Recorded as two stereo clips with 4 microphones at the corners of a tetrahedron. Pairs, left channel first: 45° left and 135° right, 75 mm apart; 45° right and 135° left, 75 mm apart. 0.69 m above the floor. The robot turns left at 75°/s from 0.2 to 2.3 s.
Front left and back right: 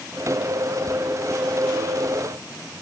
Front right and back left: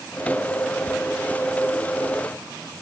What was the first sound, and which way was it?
Only background noise.